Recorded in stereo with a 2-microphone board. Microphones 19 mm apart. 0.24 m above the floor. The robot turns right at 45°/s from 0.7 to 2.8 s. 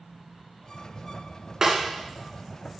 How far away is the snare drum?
About 2.5 m.